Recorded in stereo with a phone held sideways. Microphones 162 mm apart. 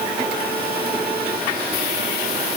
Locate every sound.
Only background noise.